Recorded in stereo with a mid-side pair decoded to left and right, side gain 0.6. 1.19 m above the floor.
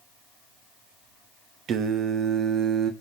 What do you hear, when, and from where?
1.7 s singing: 55° right, 0.9 m